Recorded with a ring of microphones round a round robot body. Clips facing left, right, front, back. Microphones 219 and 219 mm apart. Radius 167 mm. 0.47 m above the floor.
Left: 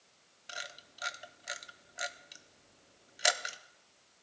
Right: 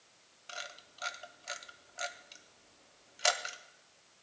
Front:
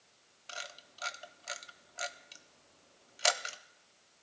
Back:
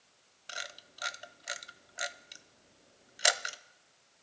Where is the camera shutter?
135° left, 0.5 m.